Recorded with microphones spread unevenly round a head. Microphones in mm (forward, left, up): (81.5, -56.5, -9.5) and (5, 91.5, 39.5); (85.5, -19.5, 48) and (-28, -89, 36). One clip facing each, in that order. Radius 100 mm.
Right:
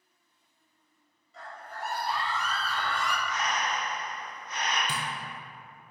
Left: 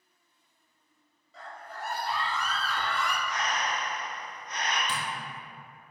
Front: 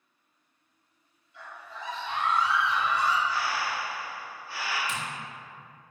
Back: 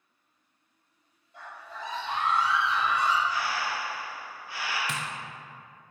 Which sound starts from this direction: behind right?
Tapping, at 4.9 s.